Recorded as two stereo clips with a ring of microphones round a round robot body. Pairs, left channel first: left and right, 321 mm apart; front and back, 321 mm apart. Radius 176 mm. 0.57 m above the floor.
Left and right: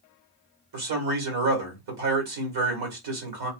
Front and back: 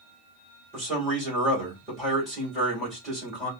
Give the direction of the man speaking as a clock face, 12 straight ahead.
3 o'clock.